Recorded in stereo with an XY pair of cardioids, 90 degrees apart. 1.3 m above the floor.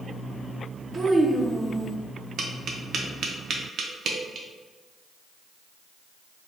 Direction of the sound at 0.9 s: 40° right.